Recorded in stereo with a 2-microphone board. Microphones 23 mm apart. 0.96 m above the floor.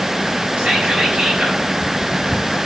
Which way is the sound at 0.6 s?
80° right.